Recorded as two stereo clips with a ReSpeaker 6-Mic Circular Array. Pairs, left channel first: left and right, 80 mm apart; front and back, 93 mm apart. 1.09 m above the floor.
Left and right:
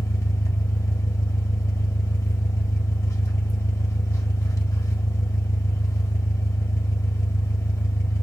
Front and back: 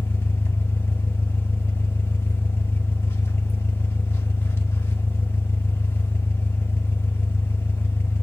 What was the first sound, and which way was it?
An engine running, 55° left.